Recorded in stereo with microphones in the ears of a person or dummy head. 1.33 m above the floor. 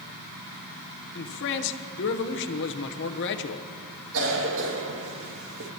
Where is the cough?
75° right (ahead or behind), 2 m.